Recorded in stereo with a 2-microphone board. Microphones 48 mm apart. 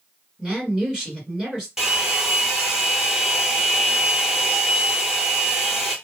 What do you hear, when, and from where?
0.4 s a woman speaking: 15° right (ahead or behind), 1.7 m
1.8 s a hair dryer: 15° right (ahead or behind), 1.1 m